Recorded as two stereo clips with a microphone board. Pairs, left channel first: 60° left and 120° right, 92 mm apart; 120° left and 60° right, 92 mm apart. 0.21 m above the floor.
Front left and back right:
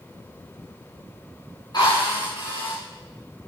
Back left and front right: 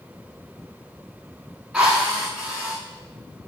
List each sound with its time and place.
1.7 s a drill: 20° left, 9.5 m